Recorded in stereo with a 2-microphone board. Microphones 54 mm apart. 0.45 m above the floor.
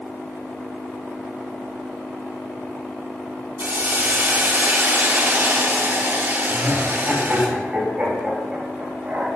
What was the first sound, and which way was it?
A hiss, 40° right (ahead or behind).